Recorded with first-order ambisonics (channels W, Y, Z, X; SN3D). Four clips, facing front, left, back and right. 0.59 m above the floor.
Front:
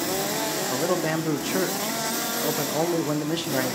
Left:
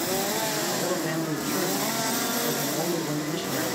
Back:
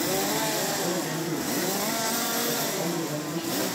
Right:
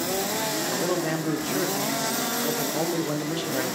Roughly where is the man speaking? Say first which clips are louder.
Right 1 dB, front 4 dB; ahead.